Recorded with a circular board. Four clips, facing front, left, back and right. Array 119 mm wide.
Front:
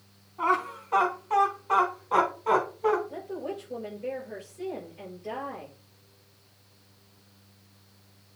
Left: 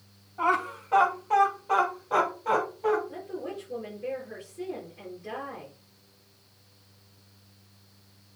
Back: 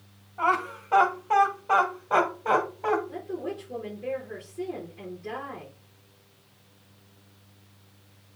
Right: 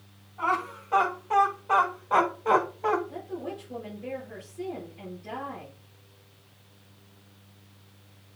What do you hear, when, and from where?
0.4 s laughter: 160° left, 2.5 m; by 3.0 s 150° right, 3 m
3.1 s a woman speaking: 170° left, 5.5 m